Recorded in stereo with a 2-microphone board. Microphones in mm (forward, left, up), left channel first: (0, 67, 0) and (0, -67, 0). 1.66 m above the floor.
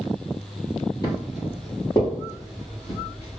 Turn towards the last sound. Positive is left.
turn(degrees=20)  # may be behind; listen again after turning